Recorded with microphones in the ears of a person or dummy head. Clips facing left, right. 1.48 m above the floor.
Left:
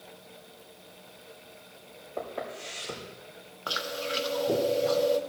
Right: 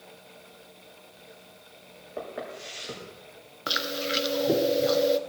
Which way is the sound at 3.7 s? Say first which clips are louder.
Right 3 dB; 25° right (ahead or behind).